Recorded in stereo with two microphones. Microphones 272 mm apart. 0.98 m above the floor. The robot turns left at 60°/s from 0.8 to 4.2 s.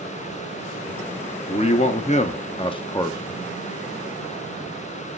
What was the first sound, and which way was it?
A man speaking, 20° left (ahead or behind).